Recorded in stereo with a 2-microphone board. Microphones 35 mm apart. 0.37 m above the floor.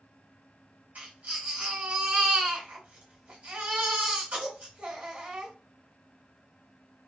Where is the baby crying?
40° right (ahead or behind), 1.9 m.